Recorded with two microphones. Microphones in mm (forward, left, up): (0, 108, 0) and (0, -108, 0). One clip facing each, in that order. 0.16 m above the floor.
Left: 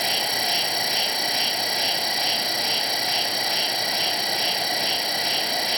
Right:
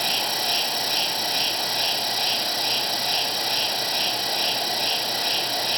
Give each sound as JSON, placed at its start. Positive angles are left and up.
{"t": 0.0, "sound": "an insect", "side_deg": 15, "distance_m": 1.0}